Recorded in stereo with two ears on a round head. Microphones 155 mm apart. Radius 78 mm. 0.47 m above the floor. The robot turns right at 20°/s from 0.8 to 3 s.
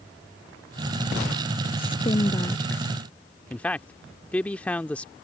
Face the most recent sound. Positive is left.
turn(degrees=10)  # may be behind; listen again after turning